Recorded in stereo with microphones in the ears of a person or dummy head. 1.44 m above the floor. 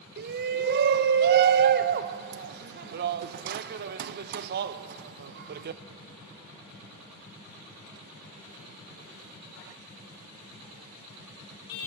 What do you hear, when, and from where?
0.2 s a shout: 55° right (ahead or behind), 0.8 m